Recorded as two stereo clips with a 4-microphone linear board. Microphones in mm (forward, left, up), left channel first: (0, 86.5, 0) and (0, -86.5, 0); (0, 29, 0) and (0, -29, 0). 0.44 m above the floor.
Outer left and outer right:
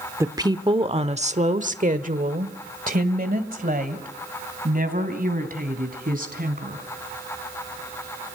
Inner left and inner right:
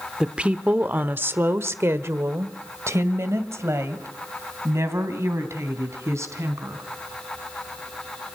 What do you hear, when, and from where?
0.2 s a woman speaking: 15° right (ahead or behind), 0.9 m; by 6.8 s 55° right (ahead or behind), 3.5 m